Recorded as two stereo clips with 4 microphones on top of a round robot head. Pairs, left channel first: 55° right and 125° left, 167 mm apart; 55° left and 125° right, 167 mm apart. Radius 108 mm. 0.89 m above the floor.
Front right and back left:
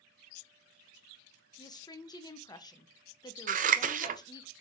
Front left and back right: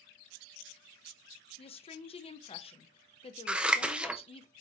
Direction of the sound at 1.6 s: 10° left.